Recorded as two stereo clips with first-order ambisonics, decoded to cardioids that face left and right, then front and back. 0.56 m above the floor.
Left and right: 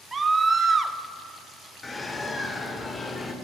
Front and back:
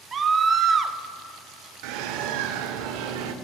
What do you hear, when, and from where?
0.1 s a scream: 145° right, 0.6 m
1.8 s a bird: 170° left, 0.6 m